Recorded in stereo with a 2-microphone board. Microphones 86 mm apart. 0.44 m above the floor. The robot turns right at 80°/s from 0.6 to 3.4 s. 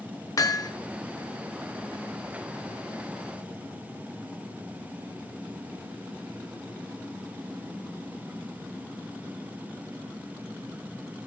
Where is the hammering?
45° left (ahead or behind), 0.5 m; by 0.7 s 55° left (ahead or behind), 0.5 m.